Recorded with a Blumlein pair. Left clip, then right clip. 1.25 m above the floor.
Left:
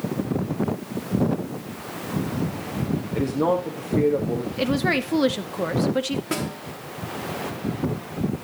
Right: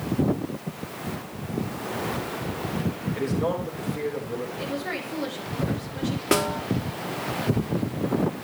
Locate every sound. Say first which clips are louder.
3.1 s a man speaking: left 5 dB; 55° left, 2.0 m
4.6 s a woman speaking: left 7 dB; 35° left, 1.2 m
6.3 s a snare drum: right 6 dB; 65° right, 1.0 m